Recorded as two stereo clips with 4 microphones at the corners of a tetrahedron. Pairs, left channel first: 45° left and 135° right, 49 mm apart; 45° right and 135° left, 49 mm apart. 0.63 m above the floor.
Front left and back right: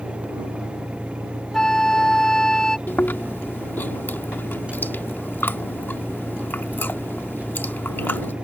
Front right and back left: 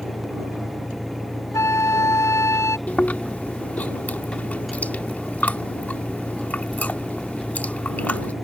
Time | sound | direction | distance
0.0 | an engine running | 35° right | ?
1.5 | a flute | 35° right | ?
2.9 | chewing | 5° left | ?